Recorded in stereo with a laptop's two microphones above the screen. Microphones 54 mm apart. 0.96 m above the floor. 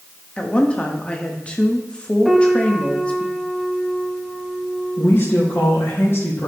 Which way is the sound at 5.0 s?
50° left (ahead or behind).